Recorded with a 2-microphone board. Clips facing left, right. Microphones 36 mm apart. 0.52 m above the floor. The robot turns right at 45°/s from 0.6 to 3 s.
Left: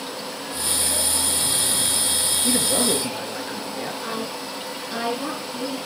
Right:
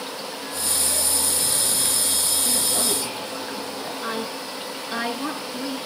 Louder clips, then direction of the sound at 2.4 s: Left 6 dB; 70° left (ahead or behind).